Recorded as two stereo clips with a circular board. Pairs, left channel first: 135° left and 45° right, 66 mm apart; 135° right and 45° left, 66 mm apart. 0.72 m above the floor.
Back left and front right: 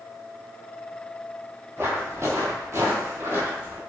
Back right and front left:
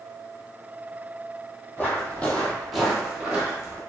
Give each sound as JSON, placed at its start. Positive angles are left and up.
{"t": 1.8, "sound": "footsteps", "azimuth_deg": -85, "distance_m": 1.1}